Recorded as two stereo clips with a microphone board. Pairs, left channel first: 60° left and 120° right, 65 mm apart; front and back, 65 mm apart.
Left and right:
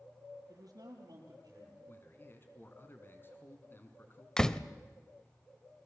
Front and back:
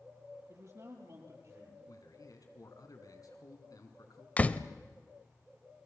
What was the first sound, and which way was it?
A man speaking, 140° right.